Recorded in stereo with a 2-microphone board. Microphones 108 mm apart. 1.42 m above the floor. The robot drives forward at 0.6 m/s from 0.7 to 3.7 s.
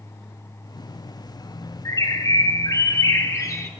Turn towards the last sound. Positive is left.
turn(degrees=25)  # may be behind; listen again after turning